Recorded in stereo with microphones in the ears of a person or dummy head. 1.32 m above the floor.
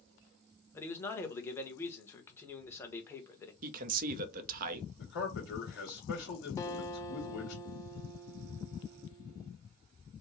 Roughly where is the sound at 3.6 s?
Right.